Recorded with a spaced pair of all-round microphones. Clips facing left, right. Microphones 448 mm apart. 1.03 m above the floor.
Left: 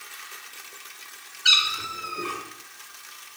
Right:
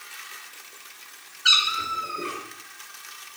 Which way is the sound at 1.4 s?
10° left (ahead or behind).